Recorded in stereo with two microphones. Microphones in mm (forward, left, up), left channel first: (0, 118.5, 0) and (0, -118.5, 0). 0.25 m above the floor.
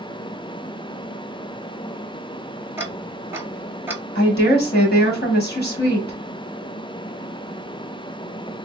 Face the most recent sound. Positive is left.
turn(degrees=45)  # may be behind; listen again after turning